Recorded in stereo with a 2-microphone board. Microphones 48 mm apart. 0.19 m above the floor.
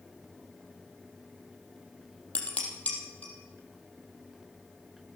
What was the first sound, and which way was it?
Dishes clattering, 30° left (ahead or behind).